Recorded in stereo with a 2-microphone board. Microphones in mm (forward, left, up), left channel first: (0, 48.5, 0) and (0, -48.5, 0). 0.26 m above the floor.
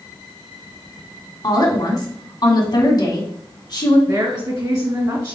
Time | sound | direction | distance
1.4 | a woman speaking | 45° left (ahead or behind) | 1.9 m
4.1 | a woman speaking | 40° right (ahead or behind) | 1.9 m